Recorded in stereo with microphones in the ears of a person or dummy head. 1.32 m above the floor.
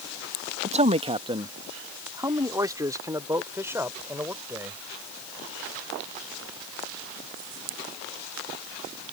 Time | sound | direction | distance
0.6 | a man speaking | 40° right (ahead or behind) | ?